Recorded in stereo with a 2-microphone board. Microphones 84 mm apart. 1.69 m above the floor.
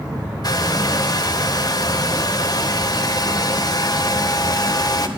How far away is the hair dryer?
About 0.8 m.